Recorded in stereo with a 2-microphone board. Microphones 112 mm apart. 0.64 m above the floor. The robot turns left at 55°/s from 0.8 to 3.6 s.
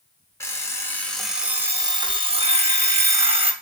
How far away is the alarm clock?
About 0.5 m.